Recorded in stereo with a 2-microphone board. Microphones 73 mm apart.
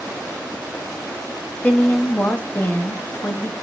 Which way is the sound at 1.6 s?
25° left (ahead or behind).